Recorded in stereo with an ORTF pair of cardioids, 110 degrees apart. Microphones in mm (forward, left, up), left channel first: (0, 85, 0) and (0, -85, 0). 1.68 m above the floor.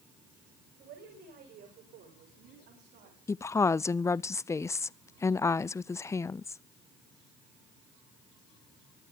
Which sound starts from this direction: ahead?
A woman speaking, at 3.3 s.